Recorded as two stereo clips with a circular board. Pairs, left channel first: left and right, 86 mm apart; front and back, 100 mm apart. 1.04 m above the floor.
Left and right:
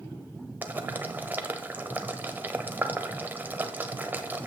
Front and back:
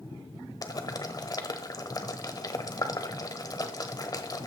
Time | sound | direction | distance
0.6 | boiling | 30° right | 1.0 m